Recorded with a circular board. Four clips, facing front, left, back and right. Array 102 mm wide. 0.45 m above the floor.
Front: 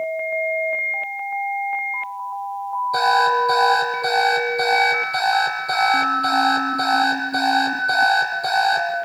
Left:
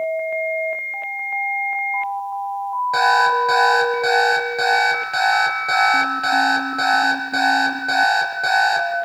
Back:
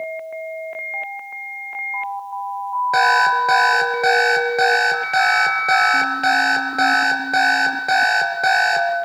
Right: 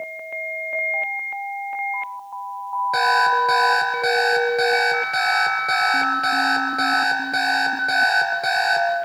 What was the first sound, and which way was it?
An alarm clock, 175° right.